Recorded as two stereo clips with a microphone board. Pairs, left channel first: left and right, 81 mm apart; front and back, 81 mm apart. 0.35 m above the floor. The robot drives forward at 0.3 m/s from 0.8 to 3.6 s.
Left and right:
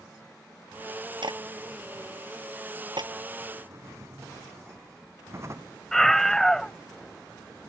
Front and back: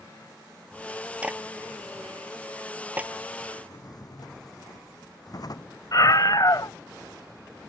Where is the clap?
105° right; by 3.1 s 110° right.